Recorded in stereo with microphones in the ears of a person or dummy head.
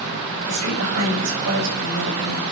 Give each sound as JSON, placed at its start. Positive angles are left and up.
{"t": 0.5, "sound": "a woman speaking", "side_deg": -85, "distance_m": 8.0}